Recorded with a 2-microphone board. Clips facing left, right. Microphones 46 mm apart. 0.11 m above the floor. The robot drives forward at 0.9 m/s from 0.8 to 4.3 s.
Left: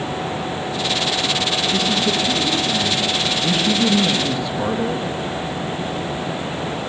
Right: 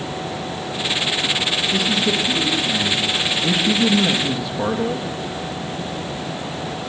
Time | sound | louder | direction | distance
1.7 | a man speaking | right 1 dB | 5° right (ahead or behind) | 4 m